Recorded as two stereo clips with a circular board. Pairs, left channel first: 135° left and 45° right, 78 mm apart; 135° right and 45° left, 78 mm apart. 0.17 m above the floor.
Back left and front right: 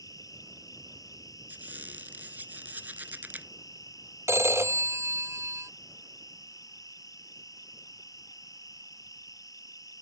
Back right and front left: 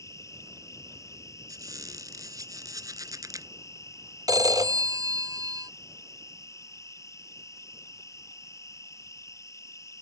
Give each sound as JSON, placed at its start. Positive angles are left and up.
{"t": 0.0, "sound": "an insect", "azimuth_deg": 175}
{"t": 1.5, "sound": "a squeak", "azimuth_deg": 20}
{"t": 4.3, "sound": "a phone ringing", "azimuth_deg": 10}